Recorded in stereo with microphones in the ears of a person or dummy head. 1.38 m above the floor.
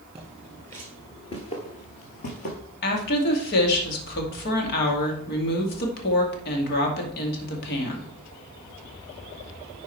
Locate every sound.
0.1 s footsteps: 15° right (ahead or behind), 1.5 m; by 2.6 s 45° left (ahead or behind), 2.5 m
2.8 s a woman speaking: 65° left (ahead or behind), 2 m